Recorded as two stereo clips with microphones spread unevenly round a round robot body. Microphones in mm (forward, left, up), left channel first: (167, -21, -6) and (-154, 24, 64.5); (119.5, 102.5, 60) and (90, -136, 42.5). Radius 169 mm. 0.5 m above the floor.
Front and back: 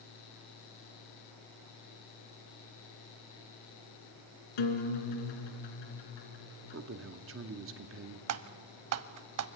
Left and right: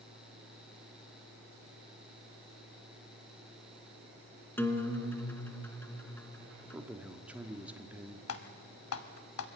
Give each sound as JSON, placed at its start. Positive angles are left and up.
{"t": 4.6, "sound": "a guitar", "azimuth_deg": 0, "distance_m": 2.5}
{"t": 6.7, "sound": "a man speaking", "azimuth_deg": -165, "distance_m": 1.1}
{"t": 8.3, "sound": "typing on a keyboard", "azimuth_deg": 130, "distance_m": 0.7}